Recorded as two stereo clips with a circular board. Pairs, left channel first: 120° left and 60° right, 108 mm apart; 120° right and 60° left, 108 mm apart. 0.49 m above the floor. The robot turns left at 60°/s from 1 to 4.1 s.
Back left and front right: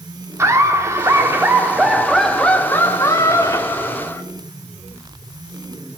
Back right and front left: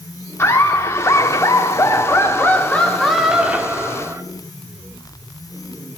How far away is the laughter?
About 1.0 m.